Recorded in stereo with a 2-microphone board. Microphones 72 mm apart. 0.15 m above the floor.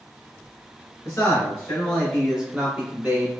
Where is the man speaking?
35° left (ahead or behind), 1.2 m; by 3.3 s 35° right (ahead or behind), 1.2 m.